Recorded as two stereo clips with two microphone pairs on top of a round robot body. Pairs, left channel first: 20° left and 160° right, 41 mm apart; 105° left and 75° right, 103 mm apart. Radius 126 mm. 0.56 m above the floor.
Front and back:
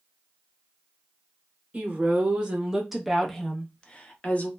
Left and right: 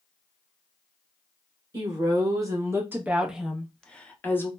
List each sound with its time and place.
1.7 s a woman speaking: 110° right, 1.1 m; by 4.5 s 45° left, 1.0 m